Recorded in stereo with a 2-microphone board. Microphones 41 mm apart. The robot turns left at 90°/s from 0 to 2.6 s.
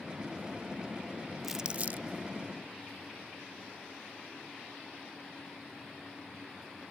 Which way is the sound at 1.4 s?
5° right (ahead or behind).